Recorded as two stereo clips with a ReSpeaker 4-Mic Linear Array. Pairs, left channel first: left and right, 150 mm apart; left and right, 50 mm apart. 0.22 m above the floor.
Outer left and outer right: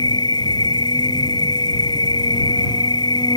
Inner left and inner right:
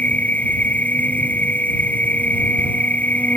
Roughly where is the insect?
Left.